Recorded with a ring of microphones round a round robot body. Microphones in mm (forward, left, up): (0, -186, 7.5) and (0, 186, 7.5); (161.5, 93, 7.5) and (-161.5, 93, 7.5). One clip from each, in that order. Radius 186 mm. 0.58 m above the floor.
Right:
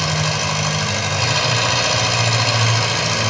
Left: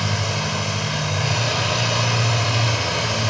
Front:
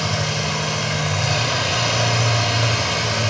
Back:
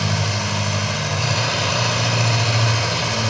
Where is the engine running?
95° right, 2.5 m.